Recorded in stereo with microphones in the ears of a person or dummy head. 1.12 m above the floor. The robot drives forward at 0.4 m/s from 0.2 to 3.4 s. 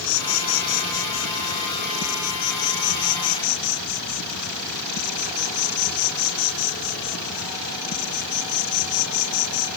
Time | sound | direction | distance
0.0 | an insect | 75° left (ahead or behind) | ?